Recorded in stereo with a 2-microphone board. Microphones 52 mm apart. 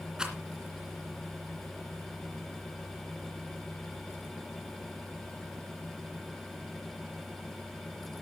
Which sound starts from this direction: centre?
A rattle, at 0.2 s.